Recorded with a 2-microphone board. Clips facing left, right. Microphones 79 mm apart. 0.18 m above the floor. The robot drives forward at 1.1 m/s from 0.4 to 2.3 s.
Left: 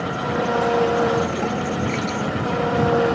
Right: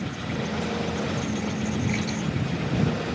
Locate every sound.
0.0 s an engine running: 70° left (ahead or behind); by 3.1 s 75° left (ahead or behind)